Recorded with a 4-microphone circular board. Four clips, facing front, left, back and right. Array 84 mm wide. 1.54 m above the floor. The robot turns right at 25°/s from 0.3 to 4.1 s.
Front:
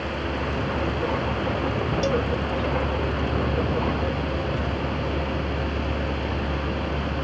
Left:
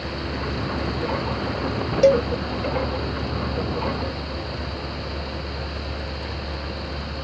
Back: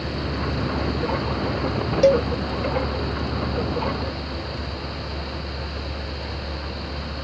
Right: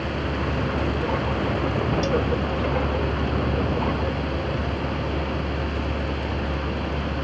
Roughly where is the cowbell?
Behind left.